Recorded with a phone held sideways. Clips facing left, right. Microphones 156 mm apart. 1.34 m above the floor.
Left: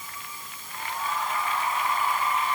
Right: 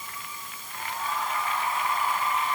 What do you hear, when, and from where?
Only background noise.